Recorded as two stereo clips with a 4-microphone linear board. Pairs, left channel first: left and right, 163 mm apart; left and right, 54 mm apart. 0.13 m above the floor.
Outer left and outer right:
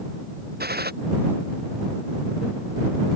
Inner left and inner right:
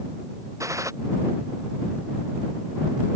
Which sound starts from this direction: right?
A gunshot, at 0.6 s.